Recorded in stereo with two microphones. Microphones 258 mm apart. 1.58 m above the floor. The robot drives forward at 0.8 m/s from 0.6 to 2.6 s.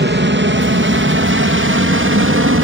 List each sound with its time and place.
0.0 s an aircraft: 45° right (ahead or behind); by 2.6 s 55° right (ahead or behind)